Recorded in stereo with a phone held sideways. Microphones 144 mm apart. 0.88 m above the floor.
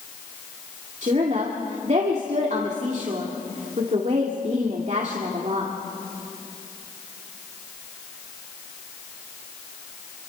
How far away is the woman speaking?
About 2.5 m.